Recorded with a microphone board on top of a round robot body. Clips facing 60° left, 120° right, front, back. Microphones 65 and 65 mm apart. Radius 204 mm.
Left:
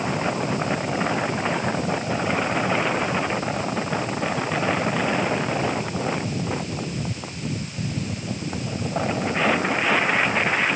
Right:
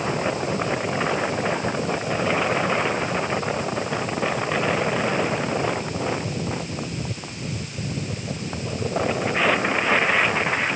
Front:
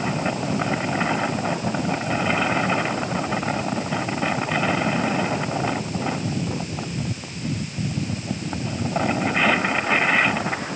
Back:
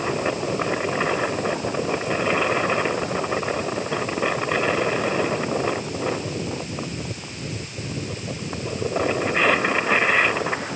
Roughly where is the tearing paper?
No tearing paper in this recording.